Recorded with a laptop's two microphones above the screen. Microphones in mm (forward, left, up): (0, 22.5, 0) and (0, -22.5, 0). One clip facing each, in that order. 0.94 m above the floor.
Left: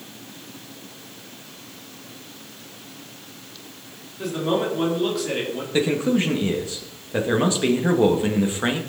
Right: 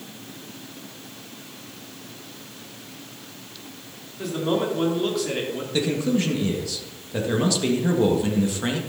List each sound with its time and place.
4.2 s a man speaking: centre (ahead or behind), 2.5 m
5.7 s a man speaking: 25° left (ahead or behind), 1.4 m